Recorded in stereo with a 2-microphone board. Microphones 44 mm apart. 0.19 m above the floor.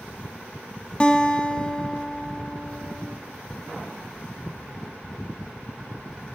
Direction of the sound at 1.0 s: 25° left (ahead or behind).